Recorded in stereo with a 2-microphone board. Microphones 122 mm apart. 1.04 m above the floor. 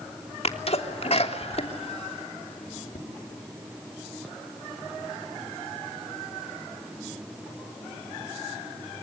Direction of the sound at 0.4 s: 60° left (ahead or behind).